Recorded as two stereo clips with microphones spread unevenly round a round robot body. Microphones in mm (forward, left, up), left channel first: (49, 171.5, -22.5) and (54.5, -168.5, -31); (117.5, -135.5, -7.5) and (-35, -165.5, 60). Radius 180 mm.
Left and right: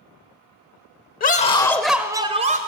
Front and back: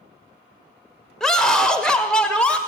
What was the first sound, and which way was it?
A scream, 50° left.